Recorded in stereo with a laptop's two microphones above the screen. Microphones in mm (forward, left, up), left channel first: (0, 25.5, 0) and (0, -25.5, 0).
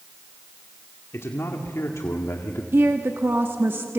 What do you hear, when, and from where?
1.1 s a man speaking: 65° left (ahead or behind), 1.9 m; by 2.6 s 70° left (ahead or behind), 1.6 m
2.7 s a woman speaking: 55° right (ahead or behind), 1.5 m